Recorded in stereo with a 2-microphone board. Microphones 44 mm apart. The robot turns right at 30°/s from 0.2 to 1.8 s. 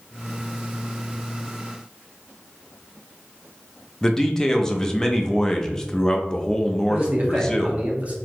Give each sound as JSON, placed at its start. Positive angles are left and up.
{"t": 4.0, "sound": "a man speaking", "side_deg": 10, "distance_m": 0.6}
{"t": 6.9, "sound": "a man speaking", "side_deg": -35, "distance_m": 1.0}